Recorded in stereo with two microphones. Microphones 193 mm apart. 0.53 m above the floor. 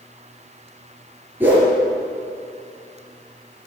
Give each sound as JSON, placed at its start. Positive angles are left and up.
{"t": 1.4, "sound": "a whoosh", "side_deg": -10, "distance_m": 4.0}